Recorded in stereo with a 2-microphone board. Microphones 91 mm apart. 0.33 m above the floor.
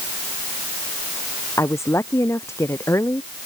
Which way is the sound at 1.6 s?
35° left (ahead or behind).